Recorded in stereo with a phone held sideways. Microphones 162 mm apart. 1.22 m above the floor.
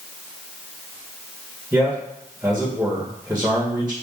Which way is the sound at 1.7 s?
5° right (ahead or behind).